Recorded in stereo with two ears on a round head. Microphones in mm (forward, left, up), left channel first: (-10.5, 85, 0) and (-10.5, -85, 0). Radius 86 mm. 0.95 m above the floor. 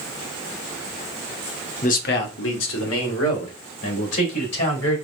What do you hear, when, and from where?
1.8 s a man speaking: 40° left (ahead or behind), 0.8 m; by 5.0 s 85° left, 4 m